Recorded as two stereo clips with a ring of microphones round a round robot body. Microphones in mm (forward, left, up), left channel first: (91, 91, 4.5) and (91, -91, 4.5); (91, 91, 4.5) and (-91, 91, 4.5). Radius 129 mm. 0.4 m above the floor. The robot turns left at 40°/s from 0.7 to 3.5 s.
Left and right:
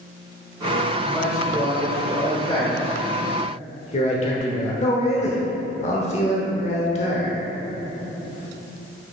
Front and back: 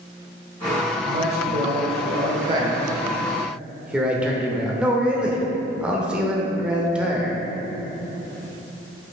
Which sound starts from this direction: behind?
A man speaking, at 1.1 s.